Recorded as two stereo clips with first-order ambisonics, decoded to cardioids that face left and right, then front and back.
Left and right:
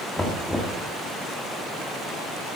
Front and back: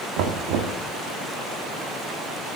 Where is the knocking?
175° left, 1.5 m.